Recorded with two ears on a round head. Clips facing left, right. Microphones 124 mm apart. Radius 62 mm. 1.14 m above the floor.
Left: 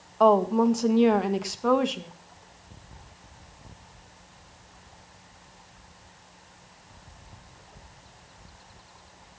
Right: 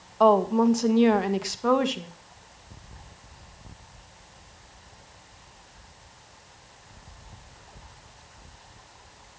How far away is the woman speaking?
About 1.5 m.